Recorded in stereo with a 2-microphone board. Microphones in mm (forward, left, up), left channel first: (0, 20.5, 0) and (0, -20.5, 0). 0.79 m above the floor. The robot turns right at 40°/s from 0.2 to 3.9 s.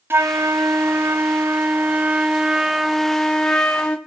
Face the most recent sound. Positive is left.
turn(degrees=35)